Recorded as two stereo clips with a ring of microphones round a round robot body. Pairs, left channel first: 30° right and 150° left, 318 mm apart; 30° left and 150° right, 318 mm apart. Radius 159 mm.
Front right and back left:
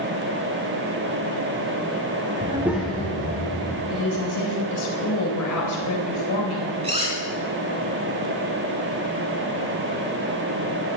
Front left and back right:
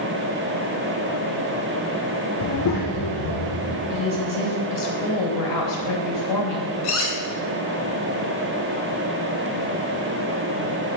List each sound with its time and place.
2.4 s a child speaking: 80° left, 0.7 m; by 3.8 s 45° left, 2.5 m
3.9 s a woman speaking: 5° left, 3.5 m
6.8 s cutlery clinking: 80° left, 4.5 m